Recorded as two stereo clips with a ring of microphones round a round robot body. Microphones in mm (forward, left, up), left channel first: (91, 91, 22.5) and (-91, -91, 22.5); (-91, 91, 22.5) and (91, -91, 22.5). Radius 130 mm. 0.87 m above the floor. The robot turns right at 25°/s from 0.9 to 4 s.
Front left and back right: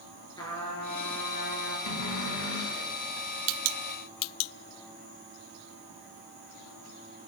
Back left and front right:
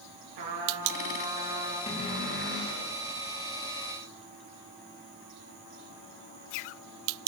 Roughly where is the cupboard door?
Ahead left.